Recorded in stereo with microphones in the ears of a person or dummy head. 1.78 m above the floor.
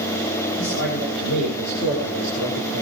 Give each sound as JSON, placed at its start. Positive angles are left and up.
{"t": 0.6, "sound": "a man speaking", "side_deg": 70, "distance_m": 8.5}